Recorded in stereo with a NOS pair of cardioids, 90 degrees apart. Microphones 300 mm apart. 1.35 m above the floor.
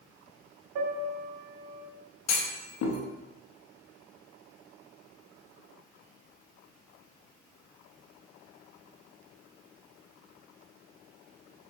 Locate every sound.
0.8 s a piano: 70° right, 0.8 m
2.3 s a clunk: 65° left, 0.8 m